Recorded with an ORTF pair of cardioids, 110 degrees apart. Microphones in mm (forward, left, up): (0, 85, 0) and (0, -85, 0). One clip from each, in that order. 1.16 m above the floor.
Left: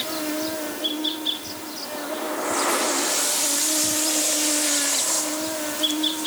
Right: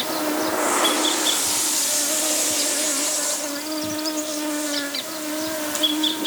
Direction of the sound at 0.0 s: 10° right.